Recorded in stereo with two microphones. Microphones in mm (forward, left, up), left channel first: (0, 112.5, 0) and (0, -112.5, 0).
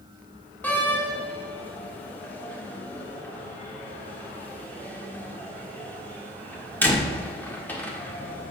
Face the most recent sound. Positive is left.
turn(degrees=10)  # may be behind; listen again after turning